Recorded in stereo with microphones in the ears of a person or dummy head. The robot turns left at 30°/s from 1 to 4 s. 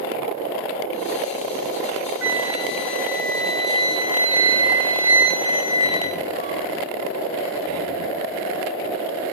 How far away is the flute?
About 2.5 m.